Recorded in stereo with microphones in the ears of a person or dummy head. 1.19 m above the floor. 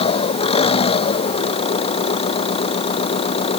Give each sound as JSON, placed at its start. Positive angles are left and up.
{"t": 0.0, "sound": "an engine running", "side_deg": 30}